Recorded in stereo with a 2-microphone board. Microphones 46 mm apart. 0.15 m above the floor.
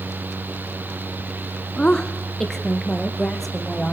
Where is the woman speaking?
20° left (ahead or behind), 1.2 m; by 3.9 s 5° left (ahead or behind), 4 m.